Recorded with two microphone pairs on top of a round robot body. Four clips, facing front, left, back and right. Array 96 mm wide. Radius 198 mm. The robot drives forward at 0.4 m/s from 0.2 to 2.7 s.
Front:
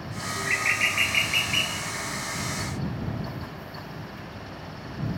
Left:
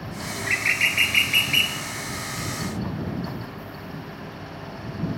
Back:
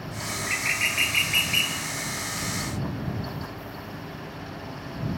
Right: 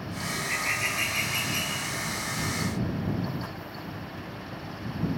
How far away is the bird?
About 1.5 m.